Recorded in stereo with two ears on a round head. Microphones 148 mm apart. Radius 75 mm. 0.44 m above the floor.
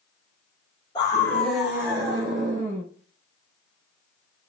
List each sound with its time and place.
0.9 s a scream: 25° left (ahead or behind), 1.4 m; by 2.8 s 45° right (ahead or behind), 1.9 m